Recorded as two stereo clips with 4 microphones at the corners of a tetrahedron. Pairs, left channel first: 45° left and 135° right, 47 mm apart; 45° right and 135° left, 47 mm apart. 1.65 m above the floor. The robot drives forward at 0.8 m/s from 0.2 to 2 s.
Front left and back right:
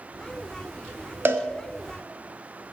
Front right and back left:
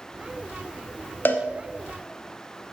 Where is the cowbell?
90° right, 0.8 m; by 1.4 s 100° right, 0.8 m.